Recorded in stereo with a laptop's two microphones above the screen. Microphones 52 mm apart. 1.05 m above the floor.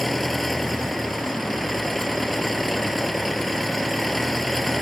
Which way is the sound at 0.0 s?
Centre (ahead or behind).